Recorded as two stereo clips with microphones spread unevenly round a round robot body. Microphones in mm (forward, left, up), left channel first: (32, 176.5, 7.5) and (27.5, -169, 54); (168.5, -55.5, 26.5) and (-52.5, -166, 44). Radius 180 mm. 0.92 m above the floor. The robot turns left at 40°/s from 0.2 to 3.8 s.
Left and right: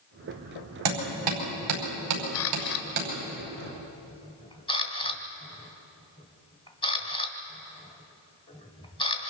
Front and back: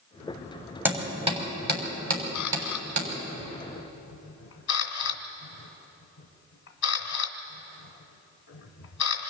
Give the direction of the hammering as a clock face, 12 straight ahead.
2 o'clock.